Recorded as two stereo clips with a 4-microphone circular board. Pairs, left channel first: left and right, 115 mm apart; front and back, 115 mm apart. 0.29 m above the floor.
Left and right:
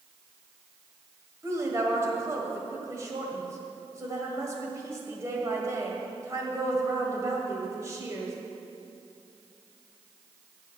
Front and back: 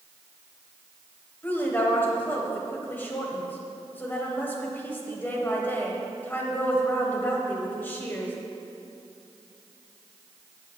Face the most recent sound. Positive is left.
turn(degrees=-55)